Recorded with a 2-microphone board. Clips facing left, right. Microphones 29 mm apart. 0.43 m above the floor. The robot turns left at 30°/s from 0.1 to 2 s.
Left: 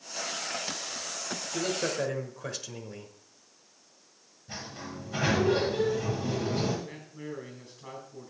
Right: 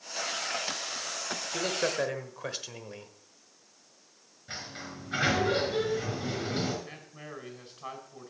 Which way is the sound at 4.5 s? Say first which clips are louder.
Even; 65° right (ahead or behind).